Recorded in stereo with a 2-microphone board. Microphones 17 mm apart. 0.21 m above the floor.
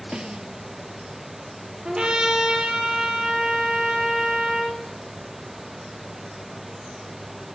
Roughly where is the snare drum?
Right.